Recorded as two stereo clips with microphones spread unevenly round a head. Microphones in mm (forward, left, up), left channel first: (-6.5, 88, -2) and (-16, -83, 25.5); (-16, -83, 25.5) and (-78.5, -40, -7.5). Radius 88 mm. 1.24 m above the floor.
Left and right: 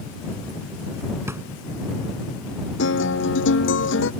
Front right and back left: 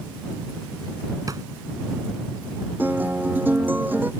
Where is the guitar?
65° left.